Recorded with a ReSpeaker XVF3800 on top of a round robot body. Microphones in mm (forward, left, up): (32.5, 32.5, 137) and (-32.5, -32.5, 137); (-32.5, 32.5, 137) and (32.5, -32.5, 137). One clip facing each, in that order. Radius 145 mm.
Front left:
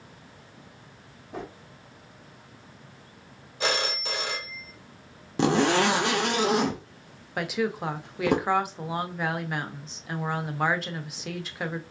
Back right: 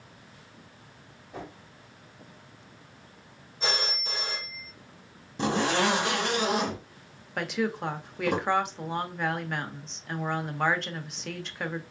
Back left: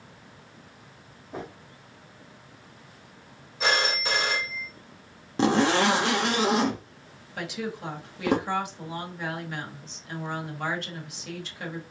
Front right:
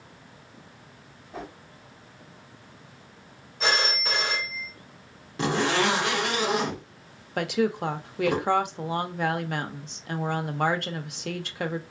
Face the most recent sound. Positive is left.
turn(degrees=-40)